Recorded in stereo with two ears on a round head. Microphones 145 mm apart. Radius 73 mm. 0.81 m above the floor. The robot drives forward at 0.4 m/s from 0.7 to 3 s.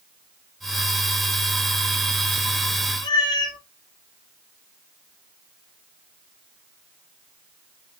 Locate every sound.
3.0 s a cat meowing: 25° left (ahead or behind), 0.6 m